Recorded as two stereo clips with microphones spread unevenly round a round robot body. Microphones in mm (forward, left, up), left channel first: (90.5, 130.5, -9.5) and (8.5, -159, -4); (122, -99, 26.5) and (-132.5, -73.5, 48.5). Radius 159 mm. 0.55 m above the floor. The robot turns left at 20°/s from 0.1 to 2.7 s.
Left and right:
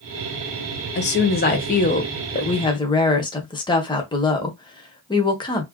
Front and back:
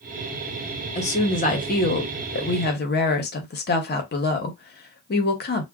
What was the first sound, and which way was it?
A woman speaking, 40° left.